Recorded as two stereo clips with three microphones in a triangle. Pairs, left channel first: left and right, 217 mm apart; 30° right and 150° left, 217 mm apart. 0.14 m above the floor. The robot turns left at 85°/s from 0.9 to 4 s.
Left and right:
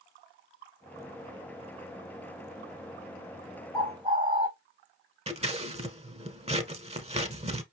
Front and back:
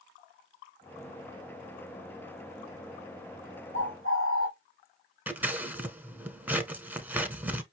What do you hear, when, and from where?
3.7 s a bird: straight ahead, 1.5 m; by 4.5 s 20° right, 1.5 m
5.3 s scissors: 130° right, 0.8 m